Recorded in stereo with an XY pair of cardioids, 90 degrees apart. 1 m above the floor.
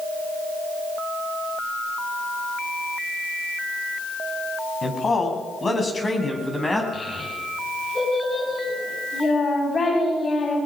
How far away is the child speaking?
About 6.5 m.